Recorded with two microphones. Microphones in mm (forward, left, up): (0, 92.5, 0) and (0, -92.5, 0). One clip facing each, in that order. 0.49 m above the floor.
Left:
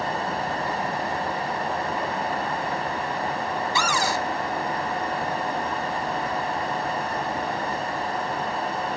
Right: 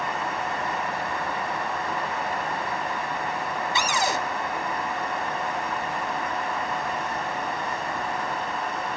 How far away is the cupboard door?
About 0.7 m.